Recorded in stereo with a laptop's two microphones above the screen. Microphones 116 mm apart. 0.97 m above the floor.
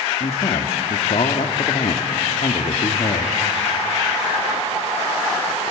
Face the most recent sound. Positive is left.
turn(degrees=60)  # may be behind; listen again after turning